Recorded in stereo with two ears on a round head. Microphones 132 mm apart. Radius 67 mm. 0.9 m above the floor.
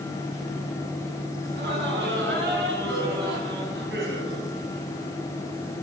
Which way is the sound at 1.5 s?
80° right.